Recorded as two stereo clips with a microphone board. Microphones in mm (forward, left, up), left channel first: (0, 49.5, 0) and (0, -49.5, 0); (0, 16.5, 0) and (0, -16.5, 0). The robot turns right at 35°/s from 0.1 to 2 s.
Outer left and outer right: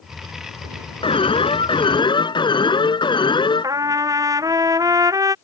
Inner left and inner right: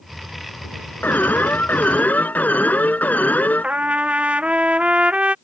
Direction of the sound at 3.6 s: 35° right (ahead or behind).